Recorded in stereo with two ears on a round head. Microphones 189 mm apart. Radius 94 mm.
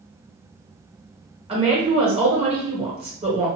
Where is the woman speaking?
30° right (ahead or behind), 1.4 m.